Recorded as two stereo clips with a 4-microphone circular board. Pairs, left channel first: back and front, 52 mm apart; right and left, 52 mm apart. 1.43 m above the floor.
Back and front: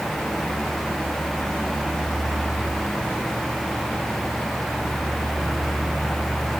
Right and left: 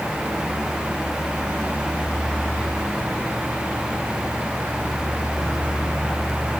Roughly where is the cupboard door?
No cupboard door in this recording.